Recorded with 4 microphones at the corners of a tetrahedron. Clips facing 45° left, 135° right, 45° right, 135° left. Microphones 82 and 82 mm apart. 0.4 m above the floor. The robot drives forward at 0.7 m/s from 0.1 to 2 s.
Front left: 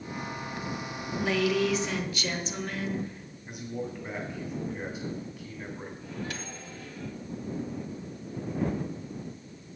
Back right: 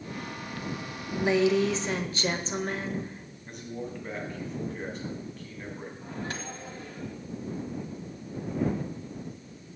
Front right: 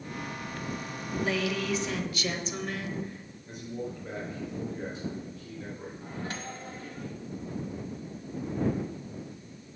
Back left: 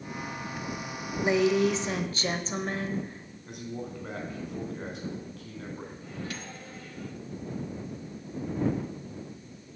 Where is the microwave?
95° right, 1.5 m.